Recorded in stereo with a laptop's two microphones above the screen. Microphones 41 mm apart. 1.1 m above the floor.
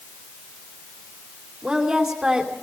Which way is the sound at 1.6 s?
15° right (ahead or behind).